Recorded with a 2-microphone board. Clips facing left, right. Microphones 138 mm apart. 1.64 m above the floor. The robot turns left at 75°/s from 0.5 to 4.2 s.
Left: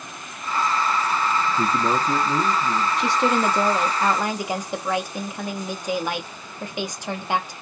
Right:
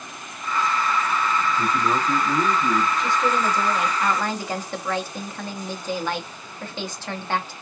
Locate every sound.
1.5 s a man speaking: 65° left, 1.1 m; by 2.9 s 40° right, 1.1 m
3.0 s a woman speaking: 105° left, 1.0 m; by 7.5 s 15° left, 1.0 m